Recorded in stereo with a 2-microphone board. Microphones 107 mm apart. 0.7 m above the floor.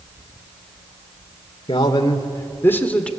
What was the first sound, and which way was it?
A man speaking, 45° left (ahead or behind).